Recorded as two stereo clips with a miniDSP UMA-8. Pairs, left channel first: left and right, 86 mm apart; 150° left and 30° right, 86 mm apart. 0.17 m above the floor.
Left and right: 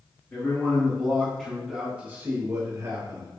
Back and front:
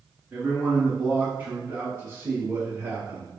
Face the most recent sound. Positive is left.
turn(degrees=-85)